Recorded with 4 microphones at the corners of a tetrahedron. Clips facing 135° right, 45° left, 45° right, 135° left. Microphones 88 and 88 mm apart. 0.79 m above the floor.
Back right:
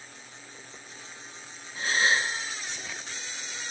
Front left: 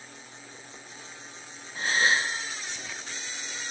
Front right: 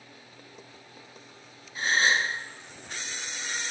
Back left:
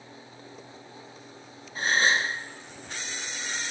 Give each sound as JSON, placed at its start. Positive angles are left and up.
{"t": 1.8, "sound": "a gasp", "azimuth_deg": 85, "distance_m": 0.6}